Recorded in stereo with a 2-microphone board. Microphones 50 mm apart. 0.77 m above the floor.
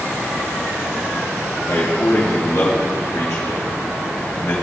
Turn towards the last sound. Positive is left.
turn(degrees=80)